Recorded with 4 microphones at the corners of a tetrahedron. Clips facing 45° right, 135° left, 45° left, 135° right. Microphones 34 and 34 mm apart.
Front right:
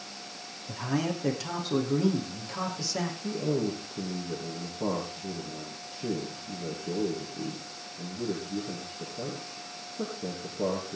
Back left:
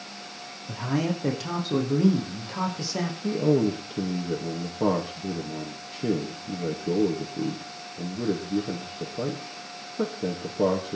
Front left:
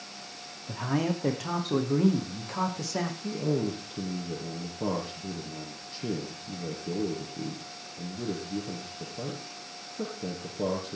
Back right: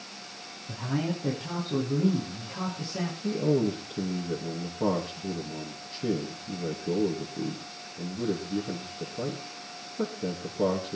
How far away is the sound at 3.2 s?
About 5.5 m.